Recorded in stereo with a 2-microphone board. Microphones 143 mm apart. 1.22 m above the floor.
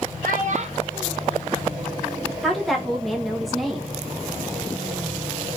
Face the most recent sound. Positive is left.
turn(degrees=0)  # may be behind; listen again after turning